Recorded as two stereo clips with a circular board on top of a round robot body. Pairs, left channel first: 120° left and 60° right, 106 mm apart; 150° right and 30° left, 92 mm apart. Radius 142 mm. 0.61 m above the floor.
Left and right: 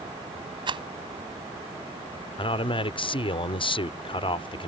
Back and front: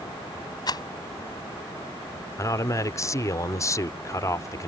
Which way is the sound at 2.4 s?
155° left.